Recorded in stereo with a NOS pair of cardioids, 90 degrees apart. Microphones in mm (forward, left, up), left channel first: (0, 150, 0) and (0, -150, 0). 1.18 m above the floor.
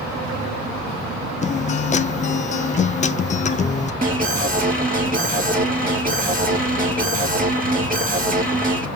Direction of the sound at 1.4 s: 25° left.